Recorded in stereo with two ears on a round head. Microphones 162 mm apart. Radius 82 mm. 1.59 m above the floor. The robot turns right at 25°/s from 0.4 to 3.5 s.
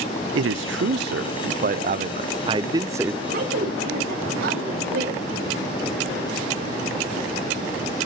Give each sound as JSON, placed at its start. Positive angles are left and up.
{"t": 0.3, "sound": "a man speaking", "azimuth_deg": -80, "distance_m": 0.6}
{"t": 3.2, "sound": "a woman speaking", "side_deg": -60, "distance_m": 7.0}